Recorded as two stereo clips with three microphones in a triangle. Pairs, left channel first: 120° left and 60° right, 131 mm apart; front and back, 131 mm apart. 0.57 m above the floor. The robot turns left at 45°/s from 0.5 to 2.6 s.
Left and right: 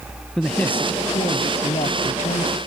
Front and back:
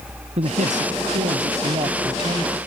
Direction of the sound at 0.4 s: 155° right.